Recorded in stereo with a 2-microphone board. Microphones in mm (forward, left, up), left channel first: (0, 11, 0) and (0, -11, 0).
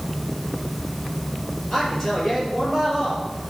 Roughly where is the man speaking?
Centre.